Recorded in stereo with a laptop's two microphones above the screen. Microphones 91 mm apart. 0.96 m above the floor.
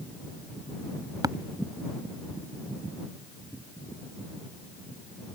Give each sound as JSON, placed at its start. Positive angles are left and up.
{"t": 1.2, "sound": "tapping", "side_deg": -45}